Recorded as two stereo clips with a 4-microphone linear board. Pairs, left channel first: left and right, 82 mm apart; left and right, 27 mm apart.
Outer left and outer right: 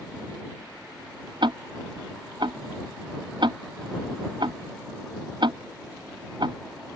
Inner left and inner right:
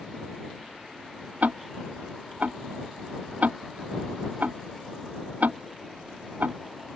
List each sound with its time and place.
1.4 s ticking: 75° right (ahead or behind)